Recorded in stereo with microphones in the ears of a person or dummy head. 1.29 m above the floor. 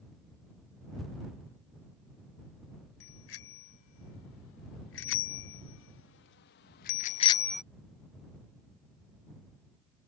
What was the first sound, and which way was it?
A bicycle bell, 85° left.